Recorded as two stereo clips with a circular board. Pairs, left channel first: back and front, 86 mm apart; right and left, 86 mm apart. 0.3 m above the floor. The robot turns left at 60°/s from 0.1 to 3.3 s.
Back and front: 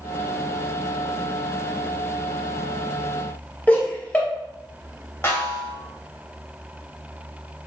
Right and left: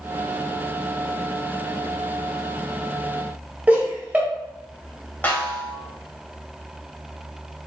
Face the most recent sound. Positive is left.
turn(degrees=-145)